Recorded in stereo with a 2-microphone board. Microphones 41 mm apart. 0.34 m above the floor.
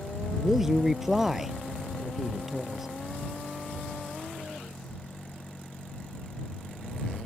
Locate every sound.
0.4 s a man speaking: 10° right (ahead or behind)